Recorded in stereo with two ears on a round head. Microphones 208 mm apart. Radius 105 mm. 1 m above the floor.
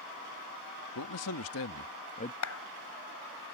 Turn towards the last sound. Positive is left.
turn(degrees=65)  # may be behind; listen again after turning